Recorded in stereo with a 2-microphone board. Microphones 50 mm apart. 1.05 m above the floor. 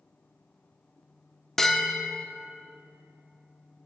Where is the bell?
5° left (ahead or behind), 0.9 m.